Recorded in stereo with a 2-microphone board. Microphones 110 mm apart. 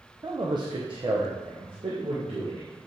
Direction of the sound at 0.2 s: 35° right (ahead or behind).